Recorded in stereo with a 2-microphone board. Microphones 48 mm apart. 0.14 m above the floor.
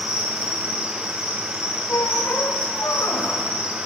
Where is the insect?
20° right (ahead or behind), 2.5 m.